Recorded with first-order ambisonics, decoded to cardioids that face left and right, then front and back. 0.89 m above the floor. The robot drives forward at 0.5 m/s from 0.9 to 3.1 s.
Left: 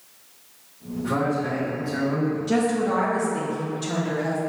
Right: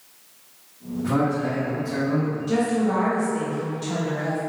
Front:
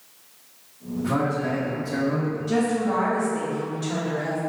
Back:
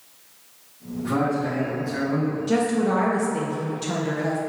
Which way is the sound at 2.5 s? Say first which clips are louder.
Even, back 1 dB; 150° left.